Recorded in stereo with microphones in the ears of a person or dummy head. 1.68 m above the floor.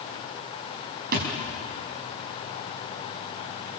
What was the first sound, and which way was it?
A thud, 55° right (ahead or behind).